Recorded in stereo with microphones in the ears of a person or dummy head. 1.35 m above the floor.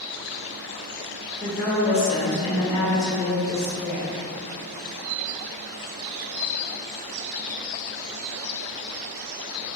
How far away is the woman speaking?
About 0.5 m.